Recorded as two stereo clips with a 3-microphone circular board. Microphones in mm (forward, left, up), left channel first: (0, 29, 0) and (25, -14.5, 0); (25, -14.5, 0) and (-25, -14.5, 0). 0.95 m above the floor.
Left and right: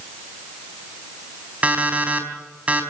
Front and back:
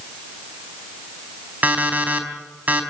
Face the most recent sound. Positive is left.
turn(degrees=-125)